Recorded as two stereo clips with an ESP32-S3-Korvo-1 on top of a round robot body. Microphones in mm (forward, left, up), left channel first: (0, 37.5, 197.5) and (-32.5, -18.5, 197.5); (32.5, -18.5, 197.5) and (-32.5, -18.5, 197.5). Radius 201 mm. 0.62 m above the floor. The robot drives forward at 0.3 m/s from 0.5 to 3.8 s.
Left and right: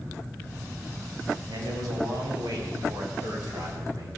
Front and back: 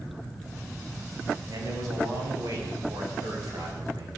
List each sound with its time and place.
1.5 s a man speaking: 145° right, 4 m; by 4.1 s 150° right, 4.5 m